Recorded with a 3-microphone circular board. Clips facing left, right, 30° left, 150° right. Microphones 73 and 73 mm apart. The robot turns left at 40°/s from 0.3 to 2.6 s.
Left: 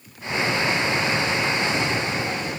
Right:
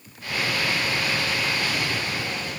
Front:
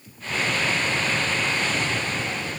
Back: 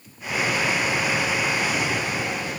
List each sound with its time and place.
Only background noise.